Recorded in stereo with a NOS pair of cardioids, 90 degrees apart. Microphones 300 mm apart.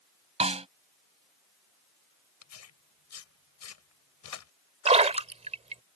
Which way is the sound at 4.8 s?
20° right.